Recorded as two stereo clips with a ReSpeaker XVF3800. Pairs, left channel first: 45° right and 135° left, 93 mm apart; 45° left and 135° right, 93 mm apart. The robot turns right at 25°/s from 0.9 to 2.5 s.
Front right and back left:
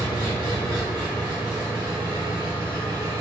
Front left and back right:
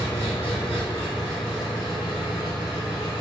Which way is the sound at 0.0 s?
45° left.